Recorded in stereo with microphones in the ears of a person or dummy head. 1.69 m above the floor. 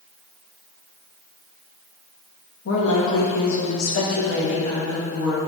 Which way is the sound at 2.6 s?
70° left (ahead or behind).